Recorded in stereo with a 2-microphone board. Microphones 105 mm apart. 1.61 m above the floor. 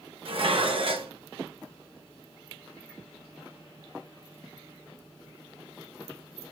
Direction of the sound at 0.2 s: 60° right (ahead or behind).